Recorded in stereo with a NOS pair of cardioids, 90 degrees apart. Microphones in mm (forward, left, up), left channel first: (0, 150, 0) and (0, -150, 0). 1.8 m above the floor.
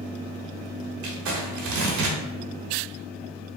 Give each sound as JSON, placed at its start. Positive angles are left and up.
{"t": 1.0, "sound": "crumpling", "azimuth_deg": -70, "distance_m": 1.1}